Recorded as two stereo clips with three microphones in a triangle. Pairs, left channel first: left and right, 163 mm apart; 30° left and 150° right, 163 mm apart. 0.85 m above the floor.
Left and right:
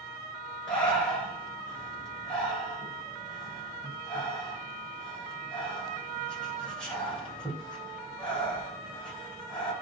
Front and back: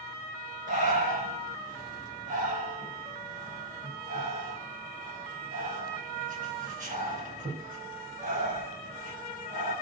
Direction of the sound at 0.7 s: 175° left.